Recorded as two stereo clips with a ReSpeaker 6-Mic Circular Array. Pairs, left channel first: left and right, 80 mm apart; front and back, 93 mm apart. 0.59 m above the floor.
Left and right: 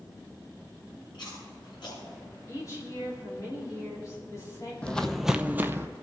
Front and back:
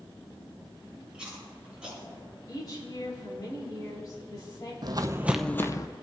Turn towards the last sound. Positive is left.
turn(degrees=-35)